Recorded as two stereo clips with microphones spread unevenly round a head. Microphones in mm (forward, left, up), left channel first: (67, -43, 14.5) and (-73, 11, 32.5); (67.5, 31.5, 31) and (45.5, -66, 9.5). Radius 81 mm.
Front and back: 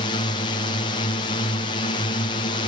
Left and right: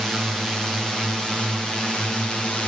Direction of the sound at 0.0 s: 20° right.